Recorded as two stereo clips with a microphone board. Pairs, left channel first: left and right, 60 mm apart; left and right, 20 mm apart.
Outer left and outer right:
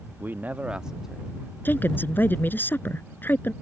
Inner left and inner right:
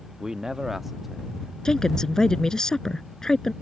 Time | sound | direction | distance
0.2 | a man speaking | 35° right (ahead or behind) | ?
1.6 | a woman speaking | 30° left (ahead or behind) | ?